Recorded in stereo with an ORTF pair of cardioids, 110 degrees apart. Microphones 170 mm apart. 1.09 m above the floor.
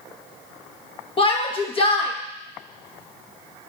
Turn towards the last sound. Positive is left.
turn(degrees=35)